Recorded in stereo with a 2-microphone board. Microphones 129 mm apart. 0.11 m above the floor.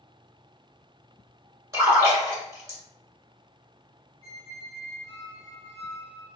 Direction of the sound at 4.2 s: 55° right (ahead or behind).